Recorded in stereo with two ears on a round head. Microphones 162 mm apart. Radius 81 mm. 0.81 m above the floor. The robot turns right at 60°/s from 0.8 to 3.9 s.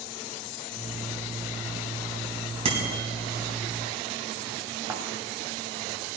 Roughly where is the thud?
Centre.